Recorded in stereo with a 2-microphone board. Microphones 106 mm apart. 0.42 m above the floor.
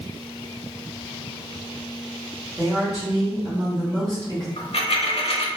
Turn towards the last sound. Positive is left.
turn(degrees=65)  # may be behind; listen again after turning